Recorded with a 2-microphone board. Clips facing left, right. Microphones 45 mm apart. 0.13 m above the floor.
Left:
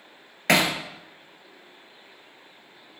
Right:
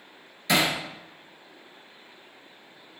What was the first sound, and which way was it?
Hammering, 55° left (ahead or behind).